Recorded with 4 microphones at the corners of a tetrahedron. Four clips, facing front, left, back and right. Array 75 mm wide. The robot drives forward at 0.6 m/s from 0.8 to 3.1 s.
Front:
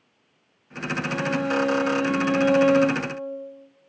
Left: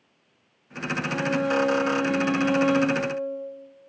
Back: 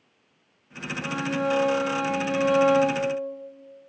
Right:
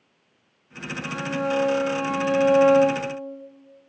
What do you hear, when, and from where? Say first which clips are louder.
1.0 s a violin: left 1 dB, even; 160° right, 5 m; by 3.1 s 165° right, 6.5 m